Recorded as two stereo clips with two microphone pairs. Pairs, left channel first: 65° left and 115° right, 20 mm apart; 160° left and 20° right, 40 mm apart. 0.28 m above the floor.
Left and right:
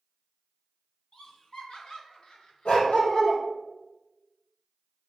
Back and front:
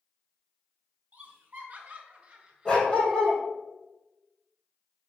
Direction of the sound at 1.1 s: 25° left.